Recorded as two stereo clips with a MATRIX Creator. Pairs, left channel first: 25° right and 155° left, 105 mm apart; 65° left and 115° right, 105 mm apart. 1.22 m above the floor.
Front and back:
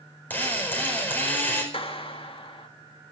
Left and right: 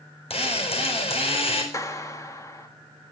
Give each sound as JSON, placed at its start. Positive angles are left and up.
{"t": 0.3, "sound": "a drill", "azimuth_deg": 50, "distance_m": 4.5}
{"t": 1.7, "sound": "a clap", "azimuth_deg": 10, "distance_m": 1.8}